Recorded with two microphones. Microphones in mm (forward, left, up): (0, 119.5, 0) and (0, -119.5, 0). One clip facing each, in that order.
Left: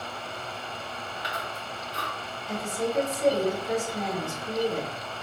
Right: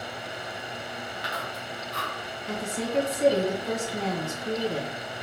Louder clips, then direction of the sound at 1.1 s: Right 1 dB; 85° right.